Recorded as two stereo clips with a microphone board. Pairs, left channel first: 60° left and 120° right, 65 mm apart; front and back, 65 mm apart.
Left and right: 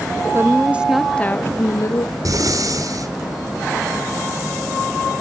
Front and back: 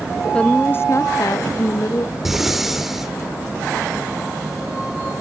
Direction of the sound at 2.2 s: 95° right.